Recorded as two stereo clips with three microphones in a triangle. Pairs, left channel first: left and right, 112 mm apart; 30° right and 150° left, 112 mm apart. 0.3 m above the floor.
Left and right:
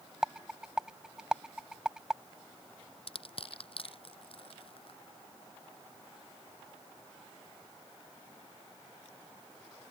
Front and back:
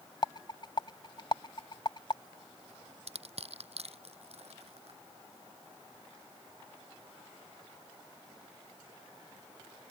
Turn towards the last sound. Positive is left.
turn(degrees=125)